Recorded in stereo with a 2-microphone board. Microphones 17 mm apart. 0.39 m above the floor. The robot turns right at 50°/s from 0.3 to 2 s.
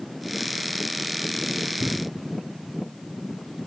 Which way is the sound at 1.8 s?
40° left (ahead or behind).